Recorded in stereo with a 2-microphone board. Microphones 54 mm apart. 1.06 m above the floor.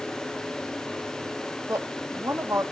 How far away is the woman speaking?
About 1.5 m.